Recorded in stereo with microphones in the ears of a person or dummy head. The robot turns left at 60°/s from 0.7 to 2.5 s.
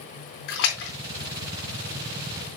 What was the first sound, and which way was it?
A splash, 65° left (ahead or behind).